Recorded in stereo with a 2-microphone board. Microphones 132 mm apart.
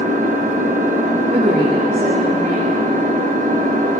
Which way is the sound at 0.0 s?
75° right (ahead or behind).